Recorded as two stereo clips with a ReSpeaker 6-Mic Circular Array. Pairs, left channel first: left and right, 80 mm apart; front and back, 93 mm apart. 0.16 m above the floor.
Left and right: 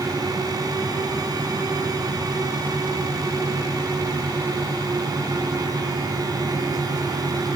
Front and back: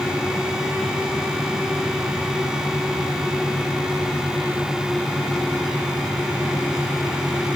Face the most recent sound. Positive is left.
No sound to turn to.